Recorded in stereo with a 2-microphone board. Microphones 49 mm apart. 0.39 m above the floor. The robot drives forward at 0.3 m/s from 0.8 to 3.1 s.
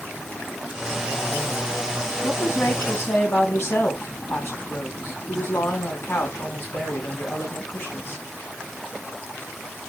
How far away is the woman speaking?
About 3 m.